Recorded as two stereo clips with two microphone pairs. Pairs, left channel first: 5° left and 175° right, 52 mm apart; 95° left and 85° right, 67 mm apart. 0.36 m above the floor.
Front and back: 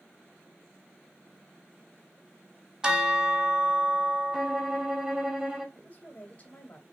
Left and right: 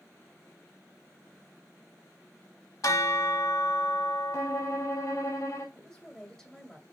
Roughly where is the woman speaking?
Ahead.